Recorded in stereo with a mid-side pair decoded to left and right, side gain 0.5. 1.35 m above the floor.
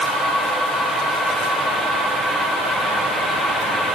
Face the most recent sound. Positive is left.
No sound to turn to.